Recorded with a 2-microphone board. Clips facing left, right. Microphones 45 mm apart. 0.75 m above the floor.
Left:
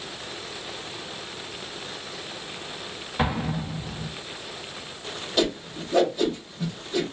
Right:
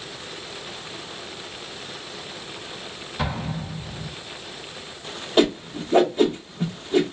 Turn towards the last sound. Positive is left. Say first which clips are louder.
# right 6 dB
turn(degrees=-35)  # may be behind; listen again after turning